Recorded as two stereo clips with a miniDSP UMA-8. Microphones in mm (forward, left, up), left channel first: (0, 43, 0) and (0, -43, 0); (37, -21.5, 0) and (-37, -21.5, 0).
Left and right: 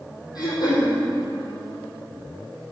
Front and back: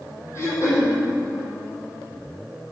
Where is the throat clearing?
50° left, 4 m.